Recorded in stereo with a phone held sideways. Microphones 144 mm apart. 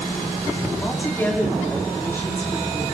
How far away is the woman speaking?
About 3 m.